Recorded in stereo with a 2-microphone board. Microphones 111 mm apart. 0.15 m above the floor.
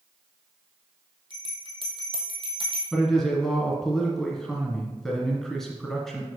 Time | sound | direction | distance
1.3 | a bell | 45° right (ahead or behind) | 1.4 m
2.9 | a man speaking | 5° left (ahead or behind) | 1.7 m